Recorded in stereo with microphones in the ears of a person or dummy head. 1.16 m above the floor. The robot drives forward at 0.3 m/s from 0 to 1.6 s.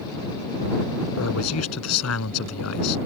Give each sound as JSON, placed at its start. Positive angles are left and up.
{"t": 1.2, "sound": "a man speaking", "side_deg": 90}